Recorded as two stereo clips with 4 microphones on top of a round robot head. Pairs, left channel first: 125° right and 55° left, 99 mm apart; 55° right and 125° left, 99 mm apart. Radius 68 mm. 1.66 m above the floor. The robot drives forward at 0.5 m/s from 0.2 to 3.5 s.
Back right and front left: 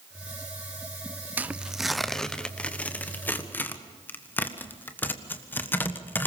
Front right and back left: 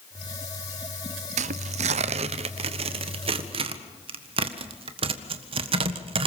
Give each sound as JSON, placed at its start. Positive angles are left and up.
{"t": 1.4, "sound": "tearing paper", "azimuth_deg": 130, "distance_m": 0.6}